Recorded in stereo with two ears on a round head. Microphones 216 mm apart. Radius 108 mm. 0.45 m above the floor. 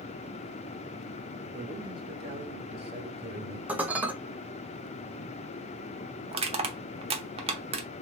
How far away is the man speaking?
About 0.9 m.